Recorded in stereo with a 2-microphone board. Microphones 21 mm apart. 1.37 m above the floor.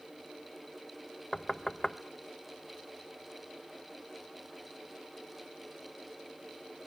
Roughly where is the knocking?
Left.